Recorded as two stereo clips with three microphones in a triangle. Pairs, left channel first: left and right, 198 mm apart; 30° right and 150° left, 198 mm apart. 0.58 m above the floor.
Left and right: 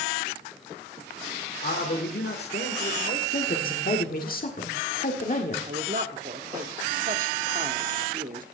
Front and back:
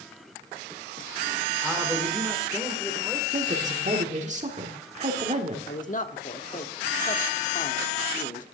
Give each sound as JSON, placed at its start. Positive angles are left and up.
{"t": 1.6, "sound": "a man speaking", "azimuth_deg": 65, "distance_m": 1.5}
{"t": 3.3, "sound": "a woman speaking", "azimuth_deg": 110, "distance_m": 1.6}
{"t": 5.7, "sound": "a man speaking", "azimuth_deg": -65, "distance_m": 1.1}